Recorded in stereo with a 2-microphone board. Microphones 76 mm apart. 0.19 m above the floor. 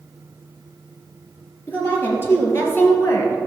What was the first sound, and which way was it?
A woman speaking, 30° left (ahead or behind).